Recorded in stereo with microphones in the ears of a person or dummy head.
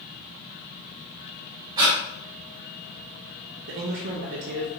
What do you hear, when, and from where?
1.8 s breathing: 25° right (ahead or behind), 1.4 m
3.7 s a man speaking: 55° right (ahead or behind), 0.5 m